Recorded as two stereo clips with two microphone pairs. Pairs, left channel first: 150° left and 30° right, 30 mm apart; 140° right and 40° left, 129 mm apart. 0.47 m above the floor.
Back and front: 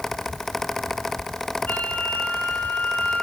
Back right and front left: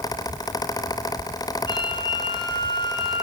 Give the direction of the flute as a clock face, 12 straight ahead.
6 o'clock.